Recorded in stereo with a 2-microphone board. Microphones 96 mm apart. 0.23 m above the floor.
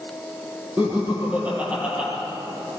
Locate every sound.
0.8 s laughter: 20° right (ahead or behind), 9 m; by 2.1 s 10° right (ahead or behind), 8.5 m